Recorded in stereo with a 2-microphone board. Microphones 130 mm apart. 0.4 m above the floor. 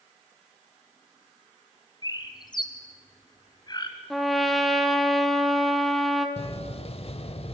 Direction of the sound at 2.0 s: 35° left (ahead or behind).